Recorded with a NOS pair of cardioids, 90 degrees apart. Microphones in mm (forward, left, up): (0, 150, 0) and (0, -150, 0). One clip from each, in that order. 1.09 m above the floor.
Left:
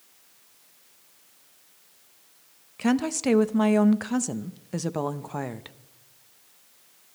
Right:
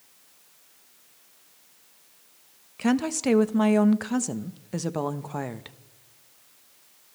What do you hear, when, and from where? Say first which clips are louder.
2.8 s a woman speaking: even; straight ahead, 0.7 m